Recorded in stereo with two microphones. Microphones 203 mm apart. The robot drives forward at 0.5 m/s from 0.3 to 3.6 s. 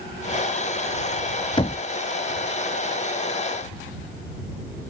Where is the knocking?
25° left (ahead or behind).